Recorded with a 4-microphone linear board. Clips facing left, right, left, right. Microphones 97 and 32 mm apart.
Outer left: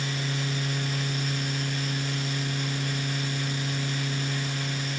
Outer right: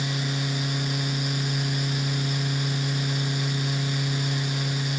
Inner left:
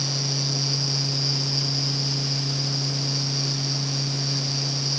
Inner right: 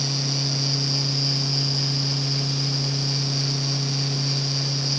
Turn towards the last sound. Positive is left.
No sound to turn to.